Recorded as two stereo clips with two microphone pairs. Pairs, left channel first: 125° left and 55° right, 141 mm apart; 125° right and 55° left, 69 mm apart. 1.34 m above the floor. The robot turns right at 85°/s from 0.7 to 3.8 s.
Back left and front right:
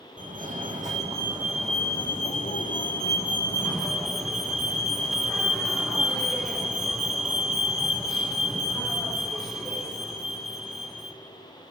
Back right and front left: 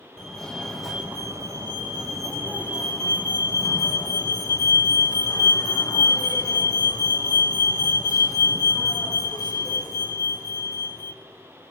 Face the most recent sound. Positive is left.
turn(degrees=-140)